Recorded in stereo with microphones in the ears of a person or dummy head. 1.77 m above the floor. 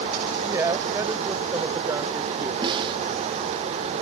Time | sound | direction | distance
0.4 | a woman speaking | 15° right (ahead or behind) | ?
2.6 | a snare drum | 25° right (ahead or behind) | ?